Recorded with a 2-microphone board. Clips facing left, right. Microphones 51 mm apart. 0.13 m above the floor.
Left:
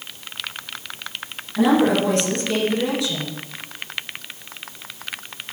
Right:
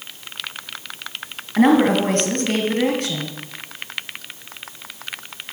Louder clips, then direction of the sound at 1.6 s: Right 2 dB; 50° right (ahead or behind).